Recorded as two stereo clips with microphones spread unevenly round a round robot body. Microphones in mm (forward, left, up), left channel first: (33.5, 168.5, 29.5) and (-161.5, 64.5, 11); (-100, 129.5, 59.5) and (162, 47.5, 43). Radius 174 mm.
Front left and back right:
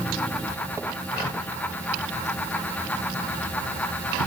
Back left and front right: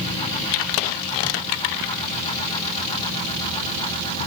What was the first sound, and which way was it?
Only background noise.